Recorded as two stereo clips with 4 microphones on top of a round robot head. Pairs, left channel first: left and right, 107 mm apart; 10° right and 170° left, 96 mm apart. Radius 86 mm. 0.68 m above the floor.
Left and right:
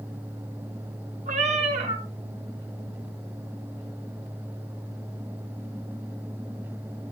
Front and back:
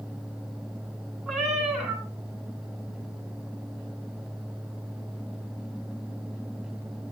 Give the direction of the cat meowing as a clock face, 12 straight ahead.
3 o'clock.